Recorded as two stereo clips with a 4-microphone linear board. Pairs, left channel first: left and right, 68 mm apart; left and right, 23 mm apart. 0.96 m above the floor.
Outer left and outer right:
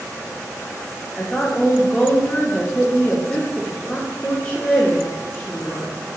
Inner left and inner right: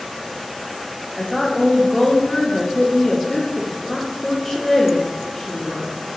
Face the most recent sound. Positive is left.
turn(degrees=15)  # may be behind; listen again after turning